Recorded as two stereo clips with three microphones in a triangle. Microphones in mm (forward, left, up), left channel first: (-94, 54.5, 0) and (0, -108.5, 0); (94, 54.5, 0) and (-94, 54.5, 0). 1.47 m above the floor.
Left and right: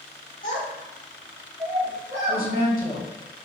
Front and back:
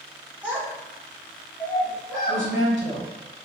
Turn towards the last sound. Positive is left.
turn(degrees=165)